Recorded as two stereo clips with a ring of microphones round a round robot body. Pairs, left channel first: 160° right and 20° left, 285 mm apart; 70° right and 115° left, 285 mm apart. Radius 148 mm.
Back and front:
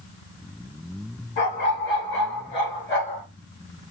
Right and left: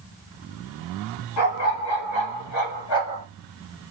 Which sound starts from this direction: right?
A dog barking, at 1.4 s.